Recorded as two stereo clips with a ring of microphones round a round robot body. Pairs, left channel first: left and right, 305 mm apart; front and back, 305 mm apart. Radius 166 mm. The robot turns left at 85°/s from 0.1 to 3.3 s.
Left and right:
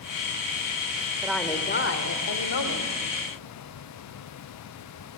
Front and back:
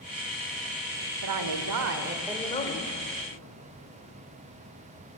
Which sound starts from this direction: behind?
A woman speaking, at 1.2 s.